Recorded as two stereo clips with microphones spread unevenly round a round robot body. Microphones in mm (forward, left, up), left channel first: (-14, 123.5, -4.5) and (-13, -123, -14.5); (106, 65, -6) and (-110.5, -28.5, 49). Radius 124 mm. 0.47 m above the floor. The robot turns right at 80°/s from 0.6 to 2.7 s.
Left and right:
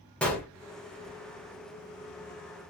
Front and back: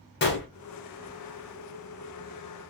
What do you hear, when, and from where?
0.2 s a gunshot: 5° left, 1.0 m